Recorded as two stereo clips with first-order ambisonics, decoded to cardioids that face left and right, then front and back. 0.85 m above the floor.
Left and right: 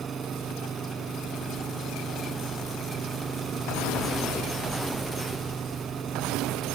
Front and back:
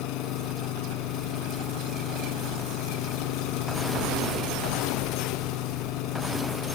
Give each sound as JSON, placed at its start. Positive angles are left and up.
{"t": 0.0, "sound": "an engine running", "azimuth_deg": -20}